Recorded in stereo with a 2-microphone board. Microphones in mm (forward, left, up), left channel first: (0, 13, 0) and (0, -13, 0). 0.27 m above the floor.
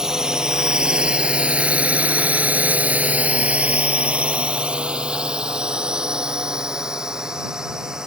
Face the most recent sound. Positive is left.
turn(degrees=-25)  # may be behind; listen again after turning